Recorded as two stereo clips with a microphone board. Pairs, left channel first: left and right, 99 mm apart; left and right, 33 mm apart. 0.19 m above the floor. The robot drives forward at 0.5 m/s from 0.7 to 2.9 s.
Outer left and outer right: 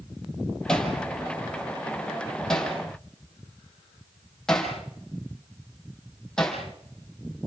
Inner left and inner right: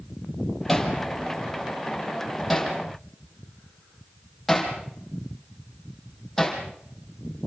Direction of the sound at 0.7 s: 5° left (ahead or behind).